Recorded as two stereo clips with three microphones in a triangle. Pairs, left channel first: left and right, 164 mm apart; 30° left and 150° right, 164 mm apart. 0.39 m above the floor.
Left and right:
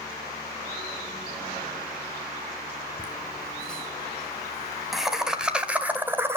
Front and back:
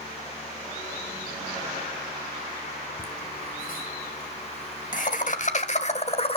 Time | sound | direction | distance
3.0 | laughter | 10° left | 3.5 m